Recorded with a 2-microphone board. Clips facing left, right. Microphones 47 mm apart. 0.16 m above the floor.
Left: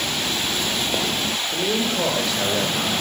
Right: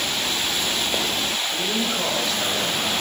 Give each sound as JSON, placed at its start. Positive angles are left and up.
{"t": 1.5, "sound": "a man speaking", "side_deg": 5, "distance_m": 3.5}